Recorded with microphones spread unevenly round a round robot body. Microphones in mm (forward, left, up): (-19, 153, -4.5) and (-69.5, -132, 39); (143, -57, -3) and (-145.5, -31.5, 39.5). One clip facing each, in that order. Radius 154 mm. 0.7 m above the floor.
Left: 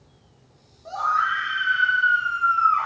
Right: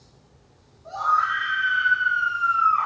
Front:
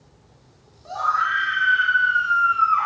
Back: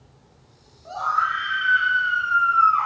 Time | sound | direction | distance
0.8 | a scream | 45° left | 2 m